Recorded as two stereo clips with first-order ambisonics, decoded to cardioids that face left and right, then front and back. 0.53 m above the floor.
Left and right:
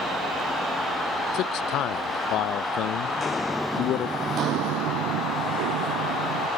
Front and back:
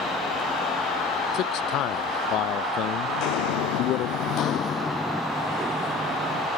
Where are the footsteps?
20° left; by 6.5 s 110° right.